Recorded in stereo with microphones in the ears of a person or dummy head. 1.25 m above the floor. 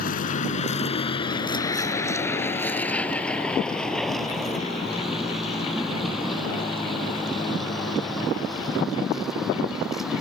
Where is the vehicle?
60° left (ahead or behind); by 10.2 s 10° right (ahead or behind).